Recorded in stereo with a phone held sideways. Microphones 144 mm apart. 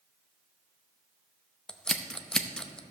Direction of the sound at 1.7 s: 5° left (ahead or behind).